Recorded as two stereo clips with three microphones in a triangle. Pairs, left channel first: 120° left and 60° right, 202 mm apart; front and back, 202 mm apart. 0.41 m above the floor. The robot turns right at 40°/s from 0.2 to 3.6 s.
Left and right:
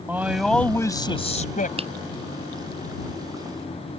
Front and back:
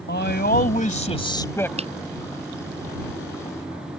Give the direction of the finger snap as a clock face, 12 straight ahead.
4 o'clock.